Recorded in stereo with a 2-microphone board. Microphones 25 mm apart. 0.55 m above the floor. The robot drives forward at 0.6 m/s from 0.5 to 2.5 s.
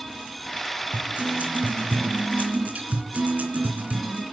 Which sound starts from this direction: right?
A guitar, at 0.9 s.